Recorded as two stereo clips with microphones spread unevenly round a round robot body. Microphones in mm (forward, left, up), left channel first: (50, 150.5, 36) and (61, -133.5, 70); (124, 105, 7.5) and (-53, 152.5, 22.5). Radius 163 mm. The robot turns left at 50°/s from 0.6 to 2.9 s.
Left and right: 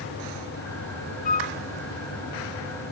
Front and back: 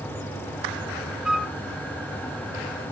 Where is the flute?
75° left, 0.5 m; by 1.6 s 60° left, 0.5 m.